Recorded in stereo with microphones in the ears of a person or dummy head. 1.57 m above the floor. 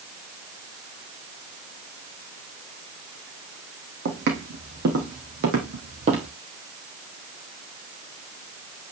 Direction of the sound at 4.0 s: 60° right (ahead or behind).